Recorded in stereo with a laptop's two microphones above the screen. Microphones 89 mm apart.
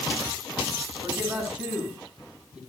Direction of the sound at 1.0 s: 20° right (ahead or behind).